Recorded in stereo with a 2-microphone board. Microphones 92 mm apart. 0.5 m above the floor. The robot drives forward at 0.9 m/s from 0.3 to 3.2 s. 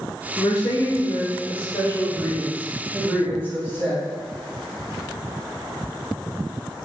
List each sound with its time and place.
0.4 s a woman speaking: 60° left (ahead or behind), 1.5 m; by 4.0 s 25° left (ahead or behind), 3 m